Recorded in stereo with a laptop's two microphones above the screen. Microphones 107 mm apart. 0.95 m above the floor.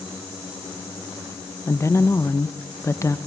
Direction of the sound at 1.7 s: 25° left (ahead or behind).